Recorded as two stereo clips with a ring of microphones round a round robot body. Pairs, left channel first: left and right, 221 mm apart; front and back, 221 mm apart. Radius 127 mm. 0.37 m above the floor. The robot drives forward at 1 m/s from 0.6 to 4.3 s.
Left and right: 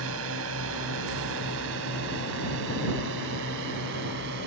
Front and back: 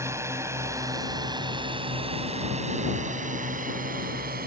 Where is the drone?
105° right; by 4.5 s 130° right.